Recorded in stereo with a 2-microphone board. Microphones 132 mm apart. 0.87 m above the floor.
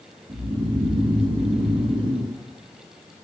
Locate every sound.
0.3 s snoring: 45° right (ahead or behind), 3 m